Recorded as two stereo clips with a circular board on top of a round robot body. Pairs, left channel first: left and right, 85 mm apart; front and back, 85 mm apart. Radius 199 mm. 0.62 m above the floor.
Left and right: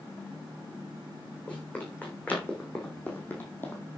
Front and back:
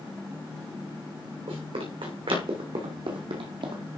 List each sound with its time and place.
1.5 s running footsteps: 165° left, 4 m; by 3.8 s 155° left, 2 m